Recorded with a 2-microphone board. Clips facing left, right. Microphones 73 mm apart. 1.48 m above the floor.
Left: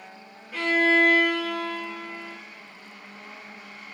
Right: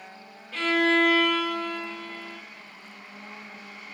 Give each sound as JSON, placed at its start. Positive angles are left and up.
{"t": 0.5, "sound": "a violin", "side_deg": 15, "distance_m": 0.9}